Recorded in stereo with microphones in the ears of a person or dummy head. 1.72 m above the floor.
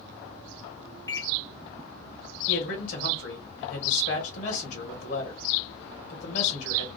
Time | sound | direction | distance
1.1 | a microwave | 25° left (ahead or behind) | 0.7 m
2.5 | a man speaking | 65° left (ahead or behind) | 1.6 m